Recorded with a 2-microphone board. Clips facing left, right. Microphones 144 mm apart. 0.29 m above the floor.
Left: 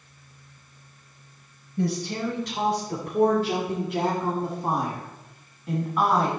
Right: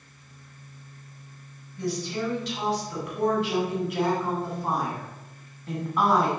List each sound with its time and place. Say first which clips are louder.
1.8 s a woman speaking: left 2 dB; 60° left (ahead or behind), 2.5 m; by 6.3 s 5° right (ahead or behind), 2.5 m